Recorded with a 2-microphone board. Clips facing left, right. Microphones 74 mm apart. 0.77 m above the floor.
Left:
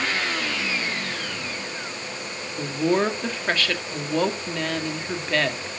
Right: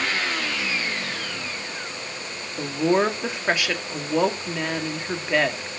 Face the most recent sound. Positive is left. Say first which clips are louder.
# right 1 dB
turn(degrees=-10)  # may be behind; listen again after turning